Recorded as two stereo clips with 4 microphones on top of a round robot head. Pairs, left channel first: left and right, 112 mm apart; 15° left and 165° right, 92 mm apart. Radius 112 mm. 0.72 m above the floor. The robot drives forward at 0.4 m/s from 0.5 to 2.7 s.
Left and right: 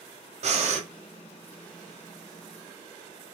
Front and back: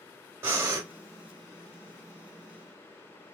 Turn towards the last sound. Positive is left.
turn(degrees=-135)